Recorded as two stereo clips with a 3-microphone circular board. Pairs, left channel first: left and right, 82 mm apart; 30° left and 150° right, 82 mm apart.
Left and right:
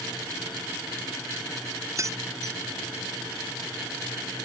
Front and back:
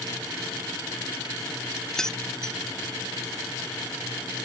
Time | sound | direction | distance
2.0 | keys jangling | 55° right | ?